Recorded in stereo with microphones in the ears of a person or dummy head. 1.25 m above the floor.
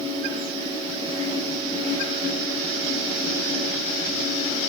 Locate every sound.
0.0 s a fan: 35° right (ahead or behind), 9.5 m